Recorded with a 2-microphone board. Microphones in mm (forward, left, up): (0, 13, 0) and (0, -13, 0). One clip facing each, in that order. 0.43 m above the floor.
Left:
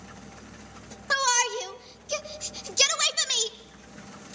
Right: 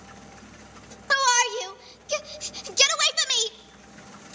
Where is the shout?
15° right (ahead or behind), 0.7 m.